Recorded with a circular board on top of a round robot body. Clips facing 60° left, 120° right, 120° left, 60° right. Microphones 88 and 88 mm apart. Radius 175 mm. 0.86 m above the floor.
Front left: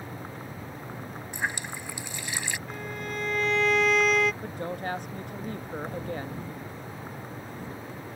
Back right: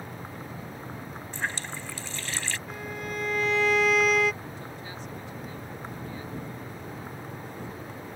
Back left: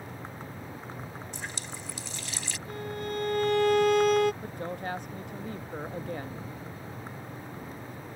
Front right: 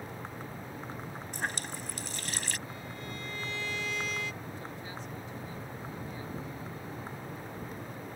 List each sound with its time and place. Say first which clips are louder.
1.3 s a running tap: front left 1 dB, front right 3 dB; 15° right
2.7 s a violin: even, back left 8 dB; 150° left
4.4 s a woman speaking: front left 7 dB, back left 7 dB; 90° left